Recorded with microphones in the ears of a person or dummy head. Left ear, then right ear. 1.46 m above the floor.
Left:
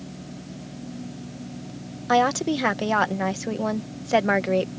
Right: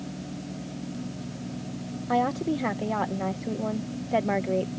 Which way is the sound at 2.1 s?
60° left (ahead or behind).